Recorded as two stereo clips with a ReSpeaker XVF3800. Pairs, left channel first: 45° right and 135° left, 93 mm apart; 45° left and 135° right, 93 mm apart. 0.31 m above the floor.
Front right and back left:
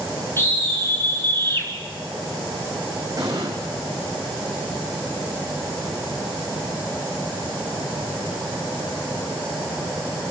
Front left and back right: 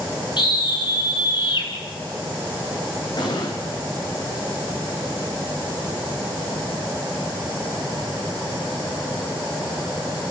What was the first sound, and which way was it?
A scream, 15° left.